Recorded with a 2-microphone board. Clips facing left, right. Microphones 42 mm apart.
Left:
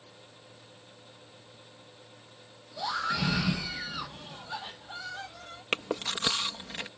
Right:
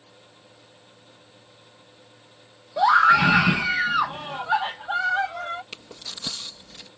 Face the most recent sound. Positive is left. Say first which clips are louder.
# left 9 dB
turn(degrees=60)  # may be behind; listen again after turning